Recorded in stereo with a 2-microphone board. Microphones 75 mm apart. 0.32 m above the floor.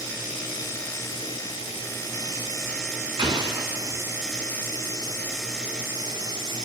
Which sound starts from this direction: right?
An explosion, at 3.2 s.